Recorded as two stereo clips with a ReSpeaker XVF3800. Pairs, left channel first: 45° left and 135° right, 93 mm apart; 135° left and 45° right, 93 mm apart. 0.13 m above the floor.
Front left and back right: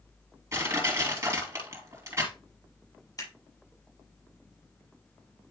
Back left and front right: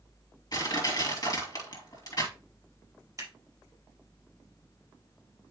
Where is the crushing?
175° left, 2.5 m.